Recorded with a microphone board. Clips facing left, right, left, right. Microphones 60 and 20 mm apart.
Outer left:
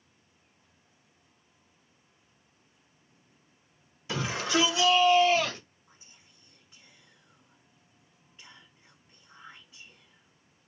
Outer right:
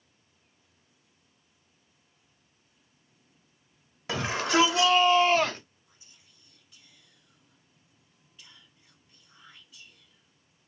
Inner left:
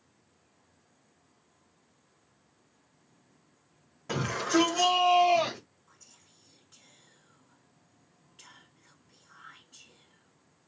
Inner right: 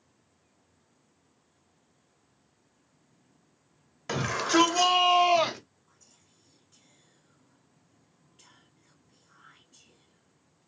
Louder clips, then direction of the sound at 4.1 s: Outer right 2 dB, inner right 2 dB; 65° right (ahead or behind).